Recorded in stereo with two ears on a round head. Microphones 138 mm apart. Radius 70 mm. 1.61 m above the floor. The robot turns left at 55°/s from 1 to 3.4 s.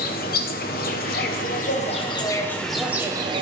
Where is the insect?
95° left, 1.0 m; by 3.4 s 35° right, 1.0 m.